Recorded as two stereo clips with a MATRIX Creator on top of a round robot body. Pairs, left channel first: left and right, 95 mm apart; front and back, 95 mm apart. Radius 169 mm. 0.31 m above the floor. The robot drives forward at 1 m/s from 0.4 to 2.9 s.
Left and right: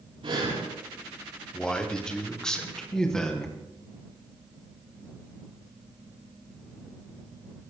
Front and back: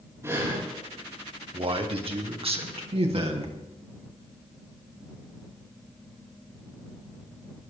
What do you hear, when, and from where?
0.2 s breathing: 120° right, 7 m
1.5 s a man speaking: 170° left, 2.5 m; by 3.6 s 175° left, 3.5 m